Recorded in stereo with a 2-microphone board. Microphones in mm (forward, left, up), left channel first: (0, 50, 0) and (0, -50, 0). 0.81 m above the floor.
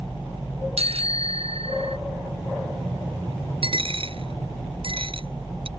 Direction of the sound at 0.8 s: 90° right.